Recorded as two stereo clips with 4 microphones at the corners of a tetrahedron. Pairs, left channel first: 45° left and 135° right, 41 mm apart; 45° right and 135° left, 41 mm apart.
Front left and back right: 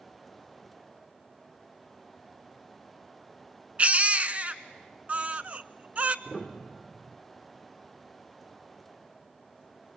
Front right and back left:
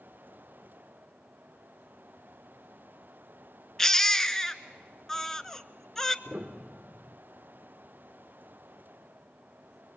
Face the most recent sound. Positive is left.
turn(degrees=130)